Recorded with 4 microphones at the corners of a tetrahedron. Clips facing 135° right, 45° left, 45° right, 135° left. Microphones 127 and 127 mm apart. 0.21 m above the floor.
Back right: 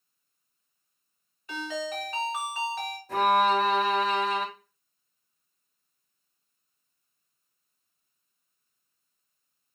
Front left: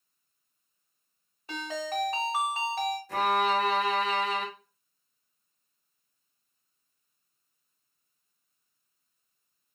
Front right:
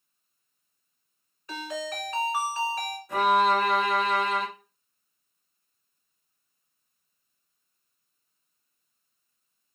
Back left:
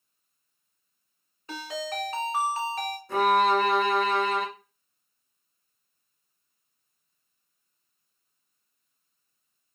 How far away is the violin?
About 1.4 m.